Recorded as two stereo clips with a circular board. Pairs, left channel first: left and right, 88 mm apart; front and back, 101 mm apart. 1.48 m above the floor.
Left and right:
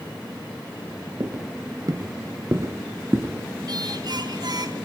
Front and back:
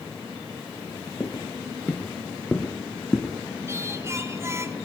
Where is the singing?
120° right, 2 m.